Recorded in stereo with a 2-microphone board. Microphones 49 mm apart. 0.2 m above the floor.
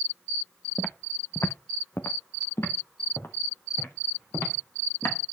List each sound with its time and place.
0.8 s footsteps: 25° left (ahead or behind), 0.8 m; by 5.2 s 50° left (ahead or behind), 5 m